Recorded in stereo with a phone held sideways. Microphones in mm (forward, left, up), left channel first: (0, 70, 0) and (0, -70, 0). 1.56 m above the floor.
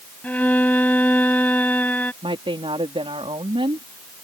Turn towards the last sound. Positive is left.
turn(degrees=-40)  # may be behind; listen again after turning